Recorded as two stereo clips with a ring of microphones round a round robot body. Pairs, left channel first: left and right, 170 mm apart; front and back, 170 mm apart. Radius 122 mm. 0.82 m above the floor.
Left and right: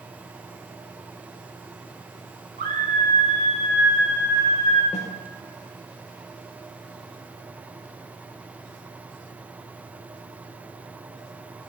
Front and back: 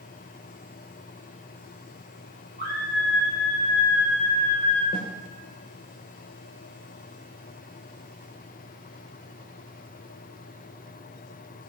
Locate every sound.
2.6 s a scream: 55° right, 5.5 m
4.9 s a snare drum: 40° left, 3 m